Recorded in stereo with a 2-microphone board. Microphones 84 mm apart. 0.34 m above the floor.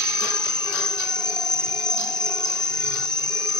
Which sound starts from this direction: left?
An insect, at 0.0 s.